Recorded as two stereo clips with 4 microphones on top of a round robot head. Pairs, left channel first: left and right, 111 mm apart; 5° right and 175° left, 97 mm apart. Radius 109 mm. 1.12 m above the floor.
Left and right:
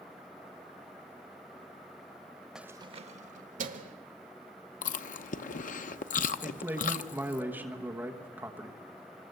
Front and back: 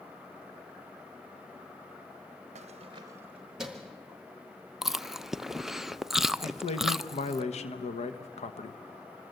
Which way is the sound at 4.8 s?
85° left.